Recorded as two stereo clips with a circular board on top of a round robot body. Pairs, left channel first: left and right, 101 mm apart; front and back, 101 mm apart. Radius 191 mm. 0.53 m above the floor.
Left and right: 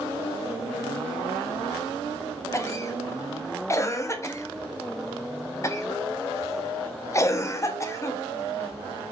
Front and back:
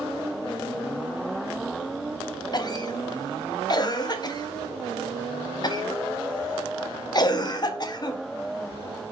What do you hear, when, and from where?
2.5 s a cough: 35° left, 0.9 m